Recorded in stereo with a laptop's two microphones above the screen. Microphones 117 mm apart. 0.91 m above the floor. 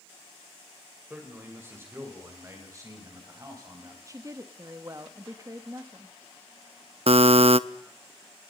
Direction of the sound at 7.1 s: 60° right (ahead or behind).